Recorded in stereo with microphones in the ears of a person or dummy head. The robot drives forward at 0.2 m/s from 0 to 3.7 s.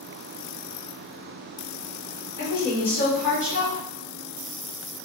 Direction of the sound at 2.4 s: 55° left (ahead or behind).